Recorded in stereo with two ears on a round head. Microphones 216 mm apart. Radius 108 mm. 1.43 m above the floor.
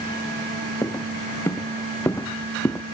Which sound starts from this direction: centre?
Footsteps, at 0.8 s.